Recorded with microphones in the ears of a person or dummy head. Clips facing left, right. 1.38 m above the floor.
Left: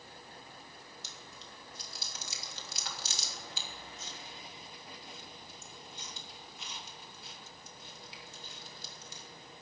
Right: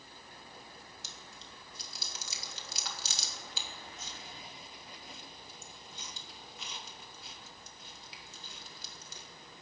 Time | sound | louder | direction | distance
1.0 | chewing | left 1 dB | 65° right (ahead or behind) | 3 m